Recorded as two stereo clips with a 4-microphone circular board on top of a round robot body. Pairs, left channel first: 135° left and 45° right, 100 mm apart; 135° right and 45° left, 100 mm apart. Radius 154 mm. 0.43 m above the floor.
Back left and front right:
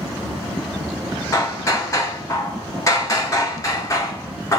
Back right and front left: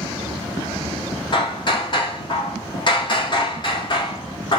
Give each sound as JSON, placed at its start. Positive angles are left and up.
{"t": 1.3, "sound": "hammering", "azimuth_deg": -170, "distance_m": 1.7}